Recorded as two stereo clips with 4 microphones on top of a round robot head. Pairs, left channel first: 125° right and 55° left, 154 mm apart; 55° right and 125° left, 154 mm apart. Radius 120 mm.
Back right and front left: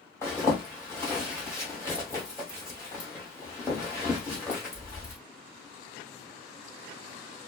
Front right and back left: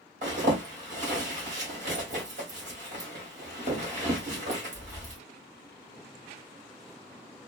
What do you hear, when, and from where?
0.2 s a zipper: 160° left, 2 m